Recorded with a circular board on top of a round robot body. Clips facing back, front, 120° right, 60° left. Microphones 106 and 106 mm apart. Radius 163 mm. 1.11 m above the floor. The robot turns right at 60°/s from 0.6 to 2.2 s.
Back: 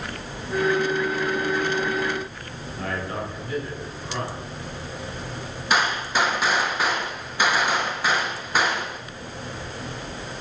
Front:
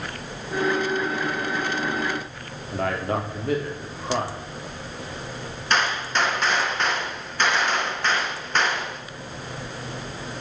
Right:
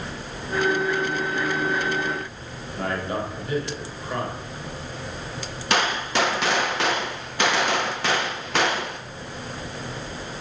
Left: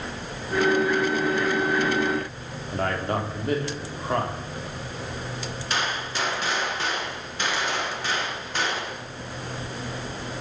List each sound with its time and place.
2.7 s a man speaking: 20° left, 3 m
5.7 s a gunshot: 95° right, 0.9 m